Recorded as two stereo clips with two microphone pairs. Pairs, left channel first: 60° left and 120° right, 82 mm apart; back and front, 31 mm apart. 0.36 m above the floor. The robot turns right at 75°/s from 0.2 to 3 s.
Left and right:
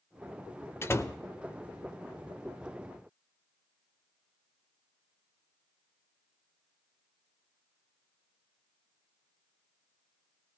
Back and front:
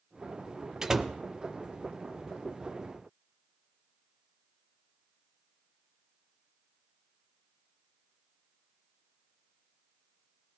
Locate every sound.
0.8 s a door slam: 45° left, 0.6 m; by 1.1 s 70° left, 0.6 m